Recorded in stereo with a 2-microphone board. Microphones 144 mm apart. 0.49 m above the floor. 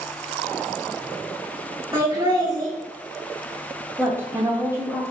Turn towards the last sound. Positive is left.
turn(degrees=-15)  # may be behind; listen again after turning